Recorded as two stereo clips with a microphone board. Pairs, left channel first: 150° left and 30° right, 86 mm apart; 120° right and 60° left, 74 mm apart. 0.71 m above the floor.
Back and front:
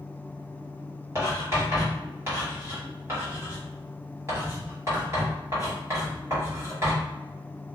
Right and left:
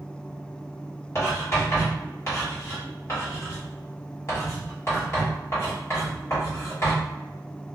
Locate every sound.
1.1 s writing: 80° right, 1.8 m